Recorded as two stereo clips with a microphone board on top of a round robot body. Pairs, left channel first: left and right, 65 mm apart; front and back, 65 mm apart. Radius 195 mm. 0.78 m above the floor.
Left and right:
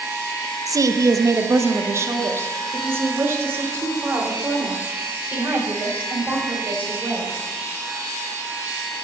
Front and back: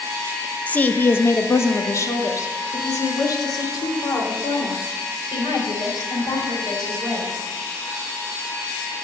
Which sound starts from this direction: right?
A woman speaking, at 0.7 s.